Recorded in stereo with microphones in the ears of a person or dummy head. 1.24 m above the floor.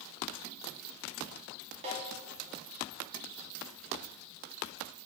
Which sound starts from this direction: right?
A snare drum, at 1.8 s.